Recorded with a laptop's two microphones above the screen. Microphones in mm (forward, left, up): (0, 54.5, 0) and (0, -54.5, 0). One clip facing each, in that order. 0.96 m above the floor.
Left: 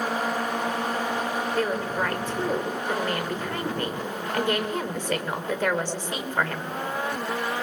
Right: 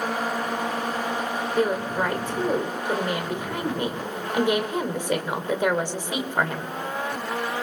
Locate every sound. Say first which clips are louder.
1.6 s a woman speaking: right 5 dB; 15° right (ahead or behind), 3 m